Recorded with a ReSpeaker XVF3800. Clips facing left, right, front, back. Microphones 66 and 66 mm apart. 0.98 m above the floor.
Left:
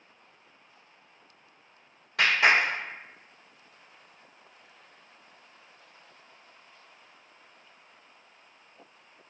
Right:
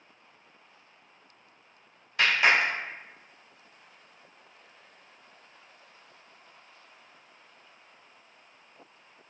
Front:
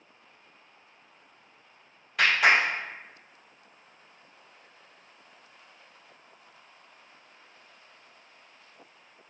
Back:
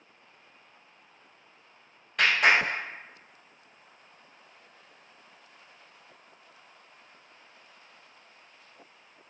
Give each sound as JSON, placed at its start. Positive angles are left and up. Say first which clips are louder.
{"t": 2.2, "sound": "a clap", "louder": "left 1 dB, front 1 dB", "azimuth_deg": 90, "distance_m": 1.5}